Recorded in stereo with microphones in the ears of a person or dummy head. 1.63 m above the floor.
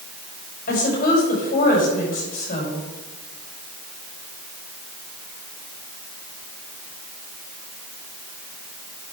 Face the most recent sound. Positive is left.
turn(degrees=50)  # may be behind; listen again after turning